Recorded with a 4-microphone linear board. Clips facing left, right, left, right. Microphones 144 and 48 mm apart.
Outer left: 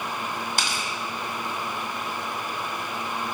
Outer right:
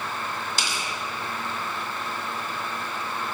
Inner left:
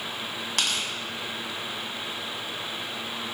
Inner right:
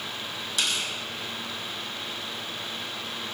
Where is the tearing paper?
60° left (ahead or behind), 2.0 m.